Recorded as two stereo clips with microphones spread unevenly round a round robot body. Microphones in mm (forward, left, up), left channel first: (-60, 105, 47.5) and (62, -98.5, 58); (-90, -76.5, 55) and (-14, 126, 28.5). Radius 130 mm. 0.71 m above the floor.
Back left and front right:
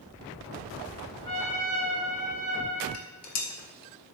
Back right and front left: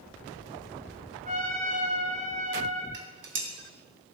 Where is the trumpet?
125° left, 4.5 m.